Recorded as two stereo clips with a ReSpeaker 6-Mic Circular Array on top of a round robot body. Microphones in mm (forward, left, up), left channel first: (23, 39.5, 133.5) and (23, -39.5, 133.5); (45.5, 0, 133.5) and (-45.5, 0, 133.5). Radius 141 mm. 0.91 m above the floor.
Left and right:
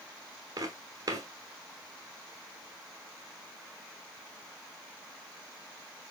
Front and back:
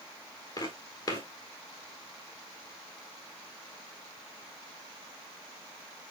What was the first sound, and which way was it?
Footsteps, 45° right.